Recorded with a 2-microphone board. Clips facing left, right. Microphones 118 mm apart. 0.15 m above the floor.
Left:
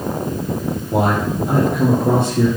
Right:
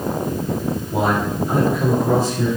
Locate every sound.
0.9 s a man speaking: 70° left (ahead or behind), 4.5 m